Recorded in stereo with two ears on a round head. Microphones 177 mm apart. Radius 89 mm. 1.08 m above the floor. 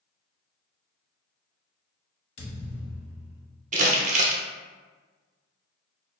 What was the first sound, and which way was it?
A thud, 35° left (ahead or behind).